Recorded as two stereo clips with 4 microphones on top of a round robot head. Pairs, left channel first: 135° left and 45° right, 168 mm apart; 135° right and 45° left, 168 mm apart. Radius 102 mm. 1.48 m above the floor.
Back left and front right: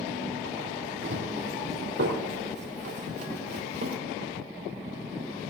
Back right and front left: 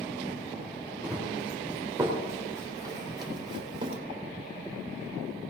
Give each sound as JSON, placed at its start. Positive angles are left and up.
{"t": 1.0, "sound": "running footsteps", "azimuth_deg": -40, "distance_m": 4.0}